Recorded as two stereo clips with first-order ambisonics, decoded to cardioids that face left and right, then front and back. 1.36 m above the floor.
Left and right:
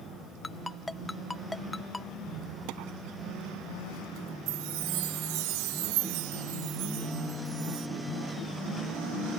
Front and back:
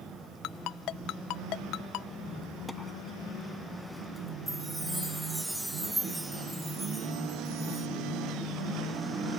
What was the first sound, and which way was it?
A ringtone, 10° left.